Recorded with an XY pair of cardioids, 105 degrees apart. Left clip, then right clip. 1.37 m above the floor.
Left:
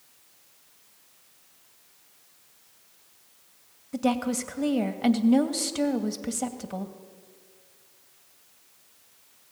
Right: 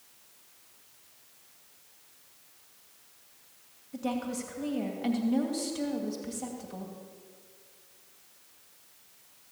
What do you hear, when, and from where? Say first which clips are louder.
3.9 s a woman speaking: left 7 dB; 55° left, 2.5 m